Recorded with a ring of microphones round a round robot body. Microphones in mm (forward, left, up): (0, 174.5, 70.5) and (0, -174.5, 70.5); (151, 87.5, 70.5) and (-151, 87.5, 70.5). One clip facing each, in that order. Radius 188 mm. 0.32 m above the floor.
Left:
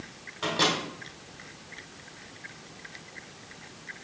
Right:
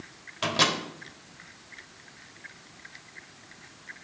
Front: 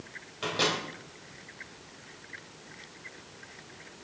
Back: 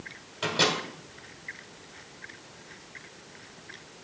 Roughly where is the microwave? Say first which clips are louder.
Left 1 dB, back 2 dB; right.